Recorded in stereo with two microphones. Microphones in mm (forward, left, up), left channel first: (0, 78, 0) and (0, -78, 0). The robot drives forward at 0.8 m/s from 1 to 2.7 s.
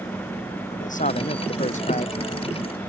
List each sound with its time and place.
0.7 s a man speaking: 55° left (ahead or behind); by 2.2 s 50° left (ahead or behind)